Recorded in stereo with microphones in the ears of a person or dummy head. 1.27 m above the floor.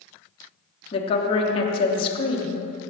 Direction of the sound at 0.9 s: 35° left (ahead or behind).